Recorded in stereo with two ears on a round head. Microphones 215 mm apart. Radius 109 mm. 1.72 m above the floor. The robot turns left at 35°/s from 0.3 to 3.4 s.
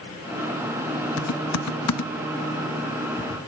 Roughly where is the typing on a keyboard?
Left.